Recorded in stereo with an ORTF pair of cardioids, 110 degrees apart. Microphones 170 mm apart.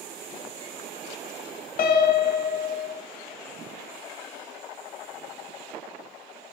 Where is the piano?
55° left, 0.6 m.